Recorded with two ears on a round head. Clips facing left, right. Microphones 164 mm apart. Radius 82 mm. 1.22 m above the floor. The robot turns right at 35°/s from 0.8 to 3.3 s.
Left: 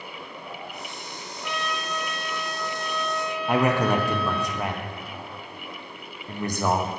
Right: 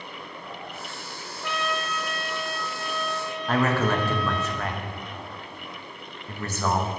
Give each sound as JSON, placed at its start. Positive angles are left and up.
{"t": 1.4, "sound": "a trumpet", "azimuth_deg": -60, "distance_m": 0.6}
{"t": 3.5, "sound": "a man speaking", "side_deg": 10, "distance_m": 0.6}